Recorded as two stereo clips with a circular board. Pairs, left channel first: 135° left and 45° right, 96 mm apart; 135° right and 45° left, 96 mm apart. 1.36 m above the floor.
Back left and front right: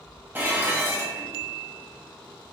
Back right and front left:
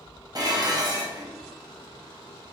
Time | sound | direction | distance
0.3 | dishes clattering | 15° left | 0.6 m